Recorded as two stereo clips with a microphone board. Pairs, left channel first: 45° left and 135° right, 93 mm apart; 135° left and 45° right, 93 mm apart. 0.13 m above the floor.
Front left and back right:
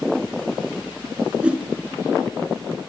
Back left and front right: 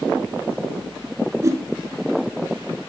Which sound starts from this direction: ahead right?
A whoosh, at 1.4 s.